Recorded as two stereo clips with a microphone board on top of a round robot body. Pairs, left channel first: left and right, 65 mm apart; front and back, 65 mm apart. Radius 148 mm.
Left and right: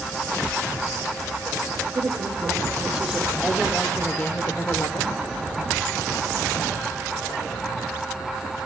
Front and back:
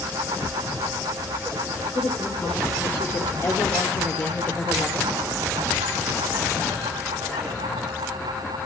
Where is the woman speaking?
40° right, 2.5 m; by 5.2 s 65° left, 1.9 m.